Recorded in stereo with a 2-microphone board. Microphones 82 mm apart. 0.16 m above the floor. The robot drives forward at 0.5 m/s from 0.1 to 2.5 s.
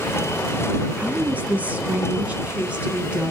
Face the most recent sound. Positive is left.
turn(degrees=-15)  # may be behind; listen again after turning